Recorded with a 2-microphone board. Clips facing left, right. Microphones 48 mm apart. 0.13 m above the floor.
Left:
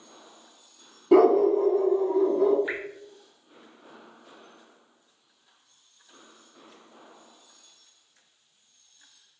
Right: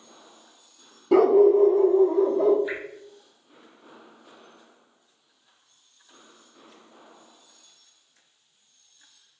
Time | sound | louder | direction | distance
1.1 | a dog barking | right 2 dB | 5° left (ahead or behind) | 0.6 m
2.7 | dripping | even | 25° left (ahead or behind) | 0.6 m